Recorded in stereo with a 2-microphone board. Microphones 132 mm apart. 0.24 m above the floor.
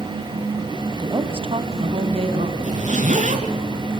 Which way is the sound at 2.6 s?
70° right (ahead or behind).